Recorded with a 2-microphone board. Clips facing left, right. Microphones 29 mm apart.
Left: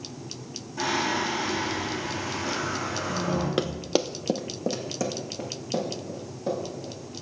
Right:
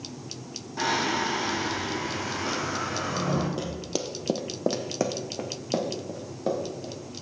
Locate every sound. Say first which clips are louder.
0.8 s singing: even; 35° right (ahead or behind), 3.5 m
3.6 s running footsteps: left 5 dB; 55° left (ahead or behind), 0.6 m; by 6.9 s 45° right (ahead or behind), 3 m